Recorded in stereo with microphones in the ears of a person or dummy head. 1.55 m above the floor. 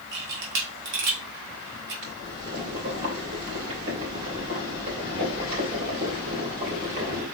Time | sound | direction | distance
0.1 | a camera shutter | 55° right (ahead or behind) | 1.0 m
2.0 | boiling | 45° right (ahead or behind) | 2.5 m